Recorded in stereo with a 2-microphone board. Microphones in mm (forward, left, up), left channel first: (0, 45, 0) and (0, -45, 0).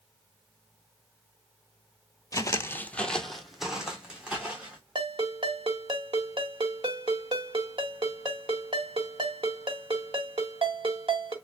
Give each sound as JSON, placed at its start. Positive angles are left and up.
{"t": 2.3, "sound": "footsteps", "side_deg": 40, "distance_m": 0.6}
{"t": 5.0, "sound": "a ringtone", "side_deg": -70, "distance_m": 1.4}